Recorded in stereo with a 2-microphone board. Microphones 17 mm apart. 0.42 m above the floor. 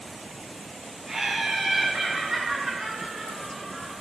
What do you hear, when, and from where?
1.1 s laughter: 25° right (ahead or behind), 1.4 m; by 3.9 s 20° right (ahead or behind), 2.5 m